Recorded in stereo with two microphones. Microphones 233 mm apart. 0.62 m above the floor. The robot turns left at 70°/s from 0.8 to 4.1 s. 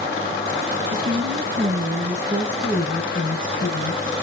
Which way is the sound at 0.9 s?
60° right.